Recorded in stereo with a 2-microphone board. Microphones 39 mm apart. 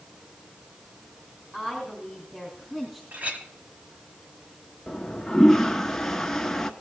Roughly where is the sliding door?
No sliding door in this recording.